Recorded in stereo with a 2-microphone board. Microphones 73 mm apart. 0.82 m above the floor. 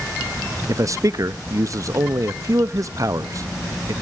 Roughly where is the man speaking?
Right.